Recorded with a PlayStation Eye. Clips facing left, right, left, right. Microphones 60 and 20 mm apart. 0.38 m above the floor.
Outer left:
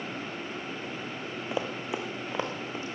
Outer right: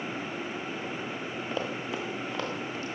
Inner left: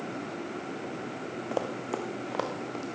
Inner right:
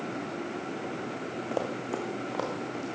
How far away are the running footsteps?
About 1.7 m.